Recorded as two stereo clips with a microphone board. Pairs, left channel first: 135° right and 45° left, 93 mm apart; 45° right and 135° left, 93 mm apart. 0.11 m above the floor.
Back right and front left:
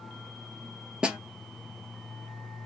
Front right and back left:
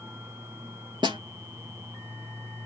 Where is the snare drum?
125° left, 1.2 m.